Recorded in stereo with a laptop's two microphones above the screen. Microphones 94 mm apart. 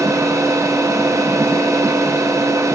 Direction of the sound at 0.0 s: 35° right (ahead or behind).